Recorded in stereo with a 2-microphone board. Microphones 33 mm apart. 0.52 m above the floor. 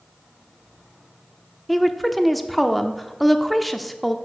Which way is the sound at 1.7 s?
Centre (ahead or behind).